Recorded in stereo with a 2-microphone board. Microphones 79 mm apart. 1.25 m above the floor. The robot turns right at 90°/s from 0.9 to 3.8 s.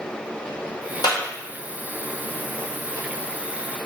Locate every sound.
1.0 s a clap: 70° left (ahead or behind), 1.2 m; by 1.2 s 80° left, 1.2 m